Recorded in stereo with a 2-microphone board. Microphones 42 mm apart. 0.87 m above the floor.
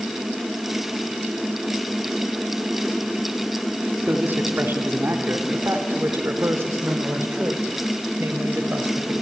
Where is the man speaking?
50° right (ahead or behind), 2.5 m; by 9.1 s 80° right, 5 m.